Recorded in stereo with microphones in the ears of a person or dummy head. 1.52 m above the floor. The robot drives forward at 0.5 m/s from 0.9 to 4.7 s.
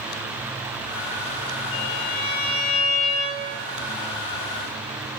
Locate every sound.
1.7 s a violin: 40° left (ahead or behind), 9.5 m